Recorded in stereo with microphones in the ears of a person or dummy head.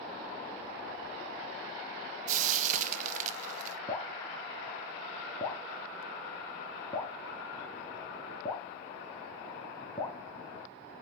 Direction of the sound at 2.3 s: 45° right (ahead or behind).